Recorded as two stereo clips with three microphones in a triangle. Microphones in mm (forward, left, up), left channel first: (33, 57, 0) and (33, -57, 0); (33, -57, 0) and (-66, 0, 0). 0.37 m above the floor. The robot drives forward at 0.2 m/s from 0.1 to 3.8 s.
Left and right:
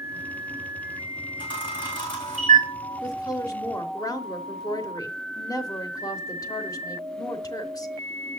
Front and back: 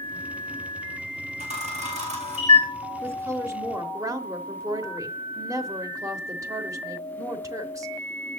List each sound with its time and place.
1.4 s a camera shutter: 135° left, 4 m; by 2.7 s 140° left, 4 m
3.0 s a woman speaking: 100° left, 0.9 m; by 8.4 s 115° left, 0.9 m